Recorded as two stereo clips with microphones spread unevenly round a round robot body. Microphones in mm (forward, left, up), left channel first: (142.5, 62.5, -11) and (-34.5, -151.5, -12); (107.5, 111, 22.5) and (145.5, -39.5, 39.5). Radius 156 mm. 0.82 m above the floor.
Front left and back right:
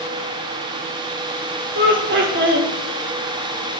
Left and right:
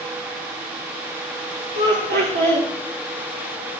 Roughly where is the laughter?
Right.